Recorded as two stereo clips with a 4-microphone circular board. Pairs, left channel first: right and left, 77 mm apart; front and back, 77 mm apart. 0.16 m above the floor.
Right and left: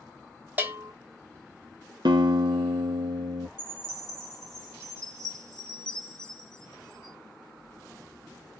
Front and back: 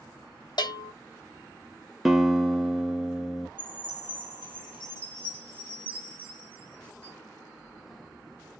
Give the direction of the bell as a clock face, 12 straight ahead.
11 o'clock.